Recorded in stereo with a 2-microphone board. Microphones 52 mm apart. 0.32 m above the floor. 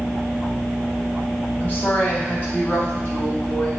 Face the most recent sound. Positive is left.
turn(degrees=35)  # may be behind; listen again after turning